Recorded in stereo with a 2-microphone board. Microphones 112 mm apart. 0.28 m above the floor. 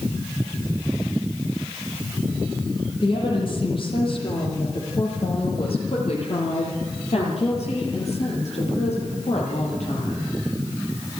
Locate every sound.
3.0 s a woman speaking: 50° left (ahead or behind), 8 m; by 10.3 s 80° left, 7.5 m